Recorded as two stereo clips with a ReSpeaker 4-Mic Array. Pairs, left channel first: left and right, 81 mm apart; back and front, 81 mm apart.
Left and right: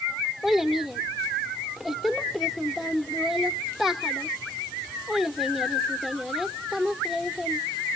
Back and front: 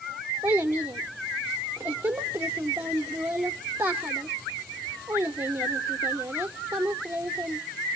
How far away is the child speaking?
About 0.6 m.